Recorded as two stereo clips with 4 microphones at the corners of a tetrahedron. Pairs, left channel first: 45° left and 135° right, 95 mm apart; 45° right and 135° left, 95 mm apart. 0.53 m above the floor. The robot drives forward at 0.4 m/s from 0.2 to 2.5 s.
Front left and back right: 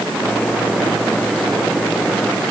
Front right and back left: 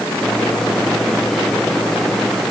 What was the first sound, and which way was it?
Only background noise.